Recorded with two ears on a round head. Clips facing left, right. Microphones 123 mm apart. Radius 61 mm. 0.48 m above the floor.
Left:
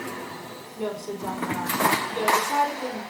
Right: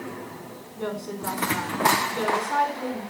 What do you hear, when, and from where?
0.8 s a woman speaking: 20° left (ahead or behind), 4 m